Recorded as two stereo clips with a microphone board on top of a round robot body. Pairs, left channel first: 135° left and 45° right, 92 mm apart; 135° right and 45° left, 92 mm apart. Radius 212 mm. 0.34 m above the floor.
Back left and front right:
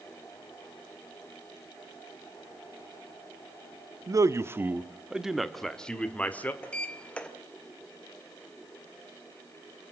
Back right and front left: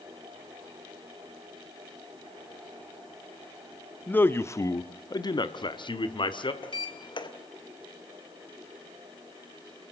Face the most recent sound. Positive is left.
turn(degrees=-150)